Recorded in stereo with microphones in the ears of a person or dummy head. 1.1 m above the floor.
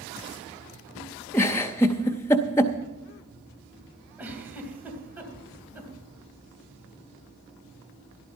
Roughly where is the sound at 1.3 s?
Centre.